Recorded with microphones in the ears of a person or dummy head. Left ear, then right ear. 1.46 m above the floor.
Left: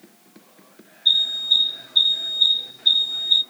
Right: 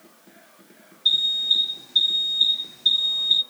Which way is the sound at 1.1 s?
55° right (ahead or behind).